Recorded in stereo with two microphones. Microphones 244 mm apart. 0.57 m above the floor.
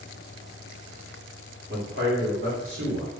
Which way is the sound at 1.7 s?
40° right (ahead or behind).